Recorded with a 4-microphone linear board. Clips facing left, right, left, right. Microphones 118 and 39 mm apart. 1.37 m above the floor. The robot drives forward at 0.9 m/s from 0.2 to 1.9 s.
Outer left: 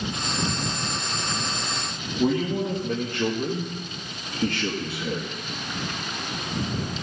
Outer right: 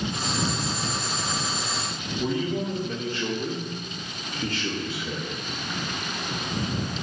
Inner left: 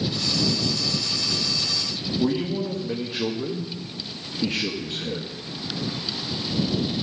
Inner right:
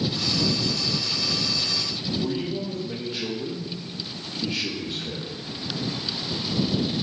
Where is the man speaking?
60° left (ahead or behind), 1.5 m.